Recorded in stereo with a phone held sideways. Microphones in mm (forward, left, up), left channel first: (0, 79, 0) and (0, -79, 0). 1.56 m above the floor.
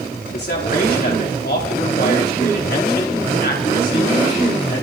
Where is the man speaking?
70° left (ahead or behind), 4.5 m.